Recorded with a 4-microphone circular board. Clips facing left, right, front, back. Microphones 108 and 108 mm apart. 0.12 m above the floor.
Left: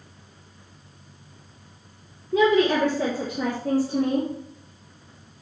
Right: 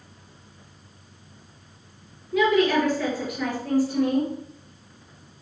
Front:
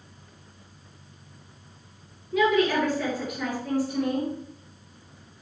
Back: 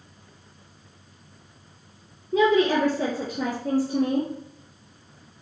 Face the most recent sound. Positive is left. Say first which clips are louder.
# left 1 dB, back 2 dB
turn(degrees=140)